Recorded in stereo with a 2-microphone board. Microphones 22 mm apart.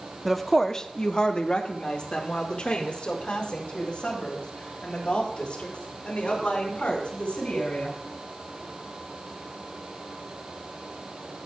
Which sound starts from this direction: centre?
A woman speaking, at 0.2 s.